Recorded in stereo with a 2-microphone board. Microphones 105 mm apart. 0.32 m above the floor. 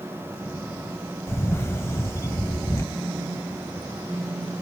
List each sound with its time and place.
1.3 s a camera shutter: 25° left (ahead or behind), 0.6 m
3.0 s a phone buzzing: 15° right (ahead or behind), 2.5 m